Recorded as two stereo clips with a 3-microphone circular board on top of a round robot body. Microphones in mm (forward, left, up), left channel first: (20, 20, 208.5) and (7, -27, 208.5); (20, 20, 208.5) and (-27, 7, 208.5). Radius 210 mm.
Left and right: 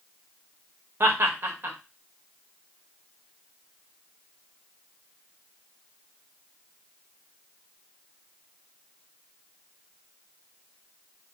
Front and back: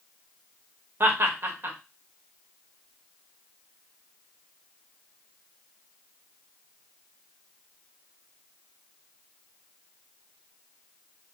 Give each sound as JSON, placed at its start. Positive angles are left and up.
{"t": 1.0, "sound": "laughter", "azimuth_deg": -135, "distance_m": 1.1}